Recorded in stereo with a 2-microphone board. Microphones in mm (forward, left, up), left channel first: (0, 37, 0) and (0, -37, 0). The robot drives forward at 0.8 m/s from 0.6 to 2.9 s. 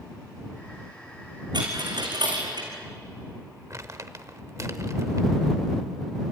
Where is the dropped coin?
90° right, 5 m; by 2.7 s 80° right, 5 m.